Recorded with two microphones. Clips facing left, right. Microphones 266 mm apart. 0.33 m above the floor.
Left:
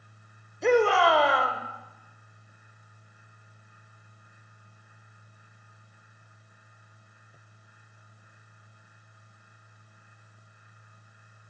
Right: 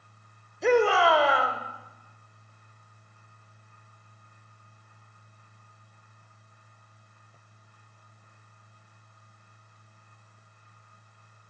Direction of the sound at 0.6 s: Centre (ahead or behind).